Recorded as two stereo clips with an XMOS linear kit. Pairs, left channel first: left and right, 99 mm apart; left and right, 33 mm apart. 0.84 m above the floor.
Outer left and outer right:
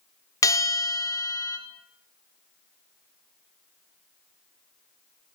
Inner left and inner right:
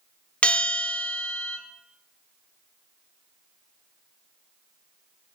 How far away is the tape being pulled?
No tape being pulled in this recording.